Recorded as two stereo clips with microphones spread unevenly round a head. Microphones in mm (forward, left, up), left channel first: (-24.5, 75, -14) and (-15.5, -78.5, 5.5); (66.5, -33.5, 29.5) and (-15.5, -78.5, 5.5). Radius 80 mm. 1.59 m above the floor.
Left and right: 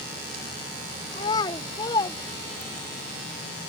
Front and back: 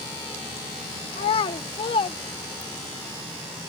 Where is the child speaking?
25° left.